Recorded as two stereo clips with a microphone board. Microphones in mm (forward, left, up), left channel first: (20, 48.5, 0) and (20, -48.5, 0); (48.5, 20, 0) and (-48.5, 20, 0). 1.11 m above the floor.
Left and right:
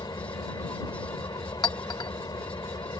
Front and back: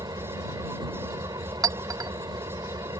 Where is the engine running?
135° left.